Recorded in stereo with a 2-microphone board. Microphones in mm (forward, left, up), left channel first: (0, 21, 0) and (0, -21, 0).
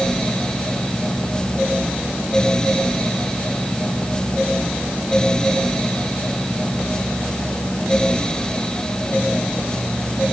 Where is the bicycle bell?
I don't hear a bicycle bell.